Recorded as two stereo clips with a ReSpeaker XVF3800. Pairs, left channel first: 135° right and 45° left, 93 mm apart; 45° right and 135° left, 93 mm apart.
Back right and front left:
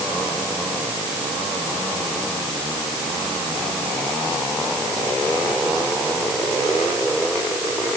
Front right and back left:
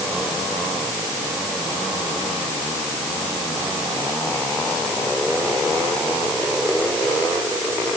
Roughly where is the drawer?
No drawer in this recording.